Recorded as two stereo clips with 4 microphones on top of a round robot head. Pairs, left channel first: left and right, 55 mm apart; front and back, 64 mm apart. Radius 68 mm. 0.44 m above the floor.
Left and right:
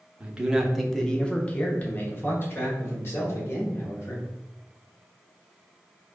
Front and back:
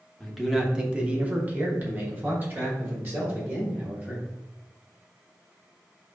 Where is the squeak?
No squeak in this recording.